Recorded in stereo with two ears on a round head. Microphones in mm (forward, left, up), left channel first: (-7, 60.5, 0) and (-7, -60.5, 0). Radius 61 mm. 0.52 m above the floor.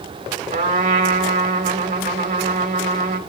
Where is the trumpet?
55° right (ahead or behind), 1.6 m.